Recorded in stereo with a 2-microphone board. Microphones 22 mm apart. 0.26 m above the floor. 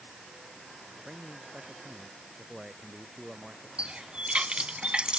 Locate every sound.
1.0 s a man speaking: 30° right (ahead or behind)
3.8 s a running tap: 60° right (ahead or behind)